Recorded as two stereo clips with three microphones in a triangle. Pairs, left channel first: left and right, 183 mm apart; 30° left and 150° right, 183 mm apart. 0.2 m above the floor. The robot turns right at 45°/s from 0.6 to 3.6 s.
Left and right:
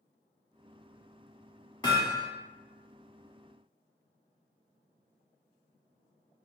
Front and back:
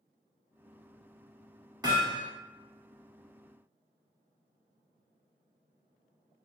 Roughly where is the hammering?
Behind left.